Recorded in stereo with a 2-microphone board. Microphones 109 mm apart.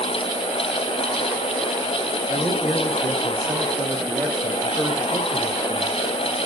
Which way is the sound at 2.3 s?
15° right (ahead or behind).